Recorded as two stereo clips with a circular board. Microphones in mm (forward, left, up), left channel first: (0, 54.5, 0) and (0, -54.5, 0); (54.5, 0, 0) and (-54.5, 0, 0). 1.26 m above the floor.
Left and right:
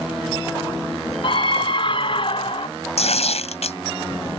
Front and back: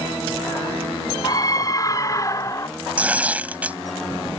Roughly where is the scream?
Ahead left.